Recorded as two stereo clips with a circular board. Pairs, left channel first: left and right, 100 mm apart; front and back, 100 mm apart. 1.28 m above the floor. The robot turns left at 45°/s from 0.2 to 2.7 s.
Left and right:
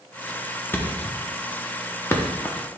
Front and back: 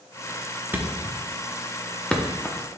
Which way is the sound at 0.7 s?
130° left.